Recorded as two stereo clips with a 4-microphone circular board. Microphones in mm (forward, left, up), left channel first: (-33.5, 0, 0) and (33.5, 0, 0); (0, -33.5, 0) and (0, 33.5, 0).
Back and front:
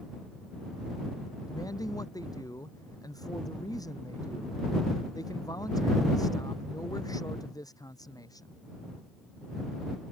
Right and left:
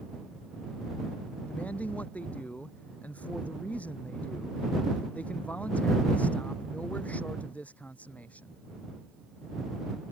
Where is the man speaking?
160° right.